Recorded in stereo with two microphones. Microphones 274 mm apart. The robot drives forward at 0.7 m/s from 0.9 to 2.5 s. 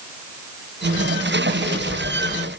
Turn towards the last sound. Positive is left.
No sound to turn to.